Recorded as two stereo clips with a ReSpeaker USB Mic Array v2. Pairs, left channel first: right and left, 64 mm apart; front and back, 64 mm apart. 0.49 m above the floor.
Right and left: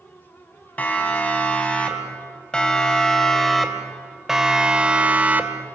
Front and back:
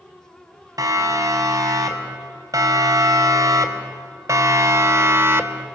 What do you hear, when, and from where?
0.8 s a siren: 155° right, 4 m; by 5.7 s 135° left, 1.7 m